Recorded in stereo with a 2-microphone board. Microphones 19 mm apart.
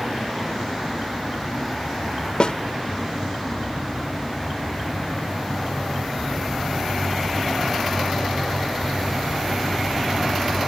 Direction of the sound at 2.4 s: 50° left (ahead or behind).